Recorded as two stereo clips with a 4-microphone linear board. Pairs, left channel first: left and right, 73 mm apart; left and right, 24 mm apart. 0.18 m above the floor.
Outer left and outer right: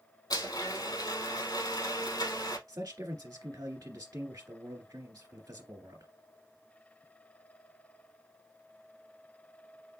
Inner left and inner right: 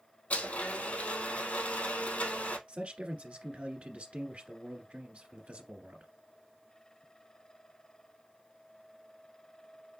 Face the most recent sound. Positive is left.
turn(degrees=-55)  # may be behind; listen again after turning